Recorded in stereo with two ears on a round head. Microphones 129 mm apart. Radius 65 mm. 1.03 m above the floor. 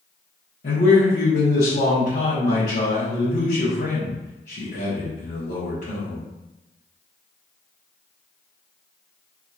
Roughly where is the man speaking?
Left.